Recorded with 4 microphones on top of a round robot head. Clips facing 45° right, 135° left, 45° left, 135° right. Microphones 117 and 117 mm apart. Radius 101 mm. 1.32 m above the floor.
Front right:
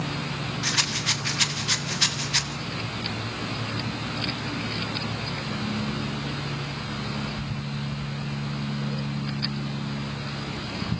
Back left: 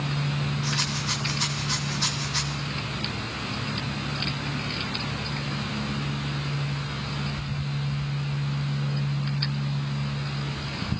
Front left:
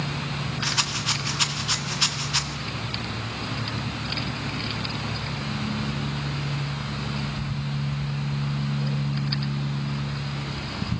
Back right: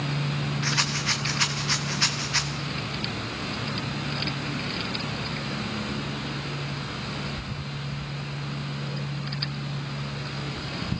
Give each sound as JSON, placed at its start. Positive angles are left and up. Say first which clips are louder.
{"t": 0.6, "sound": "a rattle", "louder": "even, back right 1 dB", "azimuth_deg": -30, "distance_m": 0.7}